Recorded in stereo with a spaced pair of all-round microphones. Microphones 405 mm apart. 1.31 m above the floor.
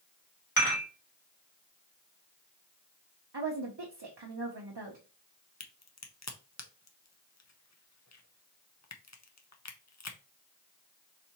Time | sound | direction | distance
0.6 | dishes clattering | 60° left (ahead or behind) | 1.9 m
3.3 | a woman speaking | 80° right | 0.7 m
5.6 | a crack | 40° left (ahead or behind) | 0.6 m